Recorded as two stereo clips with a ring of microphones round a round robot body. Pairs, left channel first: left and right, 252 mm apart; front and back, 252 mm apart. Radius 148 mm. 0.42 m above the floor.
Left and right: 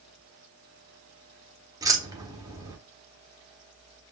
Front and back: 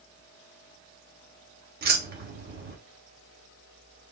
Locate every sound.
1.8 s keys jangling: 160° right, 1.0 m